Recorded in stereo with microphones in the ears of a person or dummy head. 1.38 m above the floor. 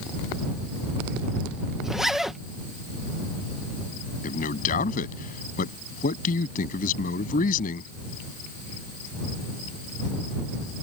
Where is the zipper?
5° right (ahead or behind).